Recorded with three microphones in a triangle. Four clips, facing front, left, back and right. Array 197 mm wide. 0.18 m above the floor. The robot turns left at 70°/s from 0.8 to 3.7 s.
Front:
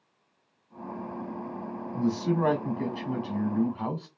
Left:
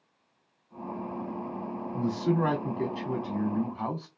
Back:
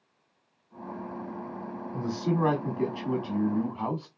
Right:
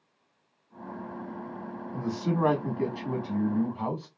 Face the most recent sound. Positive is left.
turn(degrees=155)